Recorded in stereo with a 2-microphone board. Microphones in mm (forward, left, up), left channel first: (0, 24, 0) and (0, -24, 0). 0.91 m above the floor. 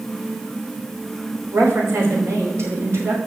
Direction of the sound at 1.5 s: 75° right (ahead or behind).